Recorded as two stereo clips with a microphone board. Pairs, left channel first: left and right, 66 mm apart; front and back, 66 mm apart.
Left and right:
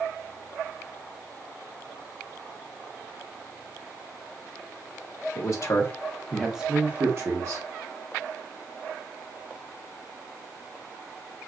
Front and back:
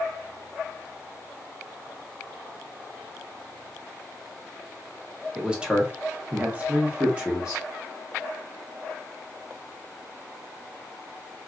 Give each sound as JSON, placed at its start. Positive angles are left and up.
{"t": 5.3, "sound": "a man speaking", "azimuth_deg": 105, "distance_m": 1.1}